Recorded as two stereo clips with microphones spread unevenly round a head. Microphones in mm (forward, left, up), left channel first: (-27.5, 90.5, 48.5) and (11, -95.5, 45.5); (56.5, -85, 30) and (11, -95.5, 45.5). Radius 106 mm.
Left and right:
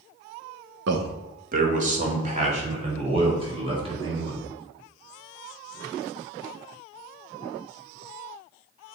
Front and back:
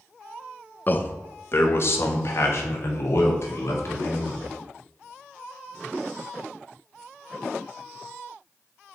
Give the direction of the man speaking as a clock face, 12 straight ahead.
1 o'clock.